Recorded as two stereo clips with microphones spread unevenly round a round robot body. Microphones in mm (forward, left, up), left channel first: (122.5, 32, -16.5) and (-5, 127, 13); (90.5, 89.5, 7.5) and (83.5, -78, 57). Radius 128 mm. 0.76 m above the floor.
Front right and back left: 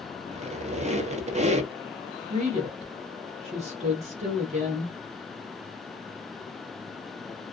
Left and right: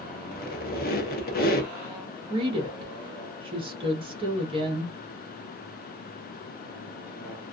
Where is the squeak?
90° left, 0.8 m.